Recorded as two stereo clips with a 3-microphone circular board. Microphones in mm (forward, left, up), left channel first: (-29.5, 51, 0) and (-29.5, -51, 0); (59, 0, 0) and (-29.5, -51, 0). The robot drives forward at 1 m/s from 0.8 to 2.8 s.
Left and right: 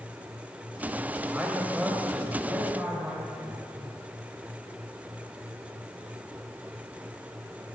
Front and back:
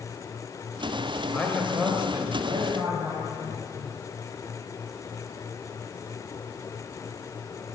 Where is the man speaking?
20° right, 1.1 m; by 3.9 s 170° right, 1.3 m.